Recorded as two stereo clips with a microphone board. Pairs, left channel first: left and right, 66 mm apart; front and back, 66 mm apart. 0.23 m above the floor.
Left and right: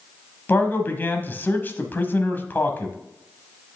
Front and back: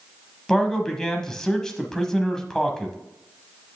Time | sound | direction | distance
0.5 | a man speaking | 75° left | 1.1 m